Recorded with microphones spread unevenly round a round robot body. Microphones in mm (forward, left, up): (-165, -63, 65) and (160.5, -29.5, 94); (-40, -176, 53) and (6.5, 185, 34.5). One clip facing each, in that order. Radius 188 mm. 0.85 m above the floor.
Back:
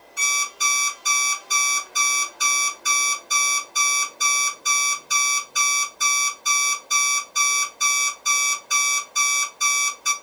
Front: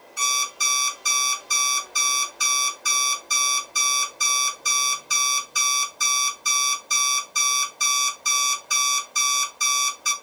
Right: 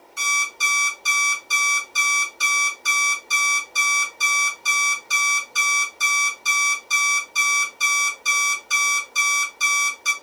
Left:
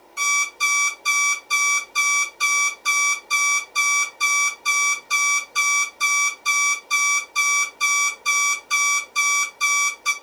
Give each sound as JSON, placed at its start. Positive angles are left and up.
{"t": 0.2, "sound": "an alarm clock", "azimuth_deg": -85, "distance_m": 1.6}